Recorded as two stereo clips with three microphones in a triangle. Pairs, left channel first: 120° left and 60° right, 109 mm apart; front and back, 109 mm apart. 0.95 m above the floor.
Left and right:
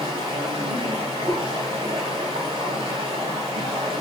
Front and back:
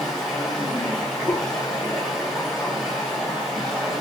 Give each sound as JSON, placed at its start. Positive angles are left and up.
{"t": 0.0, "sound": "running water", "azimuth_deg": -85, "distance_m": 1.4}
{"t": 1.3, "sound": "a whoosh", "azimuth_deg": 40, "distance_m": 0.5}